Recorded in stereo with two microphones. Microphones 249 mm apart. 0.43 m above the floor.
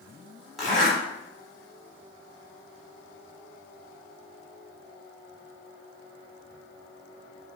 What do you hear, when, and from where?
0.6 s a zipper: centre (ahead or behind), 1.2 m